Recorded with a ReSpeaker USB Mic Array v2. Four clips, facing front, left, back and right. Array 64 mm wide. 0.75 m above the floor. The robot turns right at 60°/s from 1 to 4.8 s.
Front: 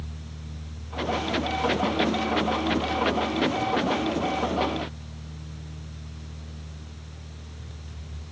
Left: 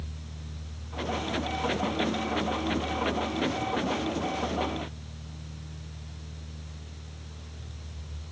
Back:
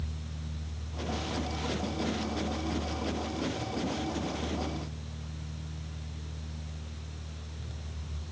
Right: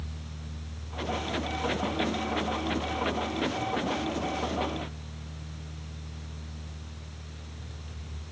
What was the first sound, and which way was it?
Only background noise.